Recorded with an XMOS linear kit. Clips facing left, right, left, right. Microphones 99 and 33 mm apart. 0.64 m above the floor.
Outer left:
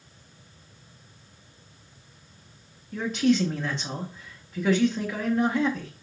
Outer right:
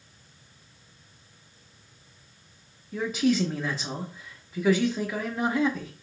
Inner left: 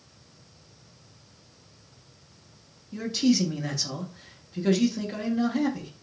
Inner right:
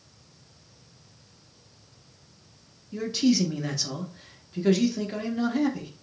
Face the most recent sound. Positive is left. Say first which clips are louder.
# outer left 2 dB, even
turn(degrees=-5)  # may be behind; listen again after turning